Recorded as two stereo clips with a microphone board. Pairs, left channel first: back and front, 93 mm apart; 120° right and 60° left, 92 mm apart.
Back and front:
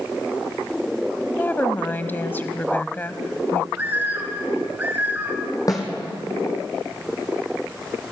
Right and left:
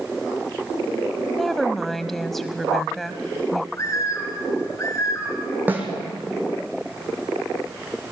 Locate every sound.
1.4 s a woman speaking: 155° left, 1.0 m
3.7 s a bird: 70° right, 3 m
5.7 s a snare drum: 130° left, 3 m